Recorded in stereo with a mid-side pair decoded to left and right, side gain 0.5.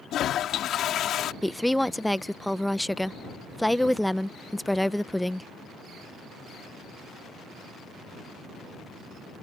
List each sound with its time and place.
0.1 s a toilet flushing: 60° left
1.4 s a woman speaking: 5° left